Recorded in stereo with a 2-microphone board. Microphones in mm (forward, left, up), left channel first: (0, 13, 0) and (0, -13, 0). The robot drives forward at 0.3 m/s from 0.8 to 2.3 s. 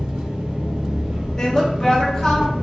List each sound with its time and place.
0.0 s an engine running: 55° right (ahead or behind), 1.3 m; by 2.6 s 70° right (ahead or behind), 1.2 m
1.4 s a woman speaking: 30° left (ahead or behind), 0.8 m